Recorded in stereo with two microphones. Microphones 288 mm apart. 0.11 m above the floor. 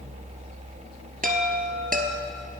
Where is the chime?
30° right (ahead or behind), 1.7 m.